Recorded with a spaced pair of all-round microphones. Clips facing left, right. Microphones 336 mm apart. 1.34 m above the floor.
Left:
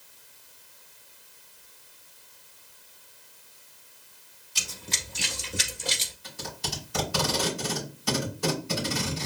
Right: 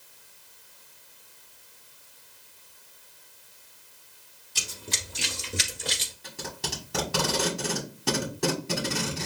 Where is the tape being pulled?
75° right (ahead or behind), 2.5 m.